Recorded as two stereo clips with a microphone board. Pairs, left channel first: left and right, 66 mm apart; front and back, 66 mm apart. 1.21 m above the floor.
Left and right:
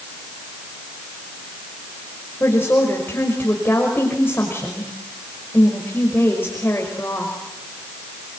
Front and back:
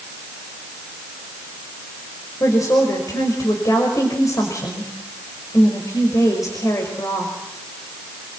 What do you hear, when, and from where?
2.4 s a woman speaking: 35° left, 5.5 m